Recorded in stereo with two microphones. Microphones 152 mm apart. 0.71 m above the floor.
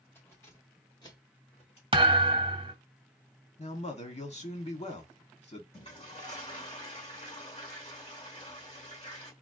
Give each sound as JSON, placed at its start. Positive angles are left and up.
{"t": 0.1, "sound": "keys jangling", "side_deg": 15, "distance_m": 2.5}
{"t": 1.9, "sound": "a thud", "side_deg": -35, "distance_m": 0.9}
{"t": 3.6, "sound": "a man speaking", "side_deg": 45, "distance_m": 1.5}
{"t": 5.7, "sound": "a toilet flushing", "side_deg": 40, "distance_m": 1.9}